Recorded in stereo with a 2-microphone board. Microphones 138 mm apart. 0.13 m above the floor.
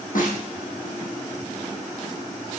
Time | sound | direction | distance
0.1 | a snare drum | 75° left (ahead or behind) | 4 m